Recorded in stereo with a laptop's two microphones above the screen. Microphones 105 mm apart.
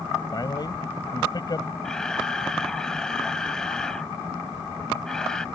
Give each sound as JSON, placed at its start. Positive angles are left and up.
{"t": 0.3, "sound": "a man speaking", "side_deg": 40}
{"t": 1.8, "sound": "a camera shutter", "side_deg": 5}